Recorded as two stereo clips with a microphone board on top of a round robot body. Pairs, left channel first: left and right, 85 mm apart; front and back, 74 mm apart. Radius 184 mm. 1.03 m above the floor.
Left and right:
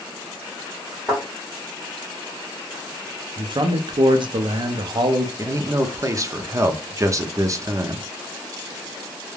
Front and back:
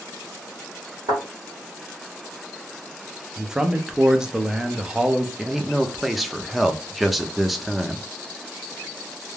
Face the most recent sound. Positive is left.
turn(degrees=-90)